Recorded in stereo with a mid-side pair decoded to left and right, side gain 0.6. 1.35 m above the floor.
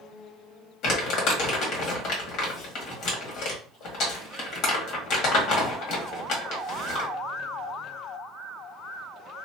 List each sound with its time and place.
0.8 s crumpling: 65° left, 1.7 m